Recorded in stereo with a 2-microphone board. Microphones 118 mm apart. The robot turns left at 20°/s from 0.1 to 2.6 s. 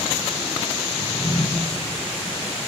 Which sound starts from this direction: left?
A drawer, at 1.0 s.